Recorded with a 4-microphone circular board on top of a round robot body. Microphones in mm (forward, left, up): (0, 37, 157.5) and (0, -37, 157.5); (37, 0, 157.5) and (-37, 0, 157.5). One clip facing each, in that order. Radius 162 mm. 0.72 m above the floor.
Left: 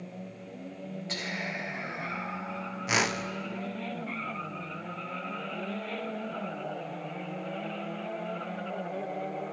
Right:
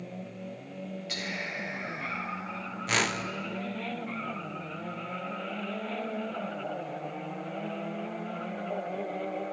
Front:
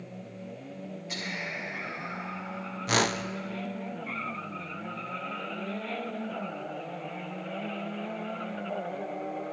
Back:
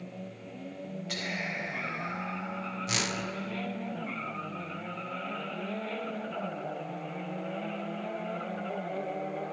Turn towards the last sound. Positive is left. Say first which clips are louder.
# left 1 dB, front 9 dB
turn(degrees=15)